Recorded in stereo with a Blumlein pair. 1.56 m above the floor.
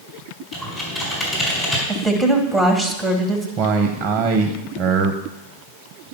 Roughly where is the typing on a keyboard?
Ahead.